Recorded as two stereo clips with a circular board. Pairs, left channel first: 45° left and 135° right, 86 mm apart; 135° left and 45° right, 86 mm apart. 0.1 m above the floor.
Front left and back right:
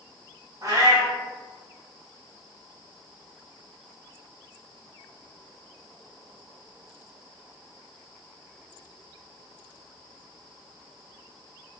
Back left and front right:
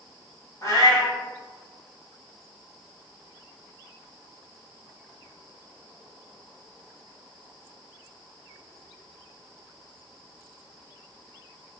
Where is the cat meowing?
175° right, 1.3 m.